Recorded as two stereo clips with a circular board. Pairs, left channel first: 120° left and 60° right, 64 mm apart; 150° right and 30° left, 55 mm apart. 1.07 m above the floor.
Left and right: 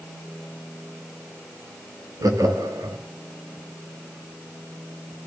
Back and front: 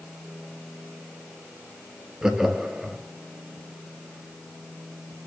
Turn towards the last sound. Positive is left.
turn(degrees=-50)